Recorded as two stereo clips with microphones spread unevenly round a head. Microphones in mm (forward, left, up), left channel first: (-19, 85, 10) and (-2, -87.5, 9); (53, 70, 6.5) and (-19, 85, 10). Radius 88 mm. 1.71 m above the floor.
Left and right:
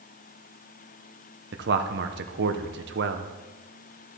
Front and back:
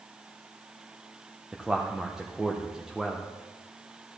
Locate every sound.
1.5 s a man speaking: 105° right, 1.0 m